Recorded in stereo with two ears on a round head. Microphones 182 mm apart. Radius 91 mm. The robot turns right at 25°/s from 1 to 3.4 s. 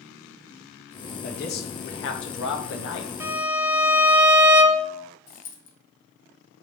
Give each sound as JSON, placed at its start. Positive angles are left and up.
{"t": 1.2, "sound": "a man speaking", "azimuth_deg": 50, "distance_m": 0.9}
{"t": 3.2, "sound": "a violin", "side_deg": -10, "distance_m": 0.7}
{"t": 5.3, "sound": "a dropped coin", "side_deg": 35, "distance_m": 1.4}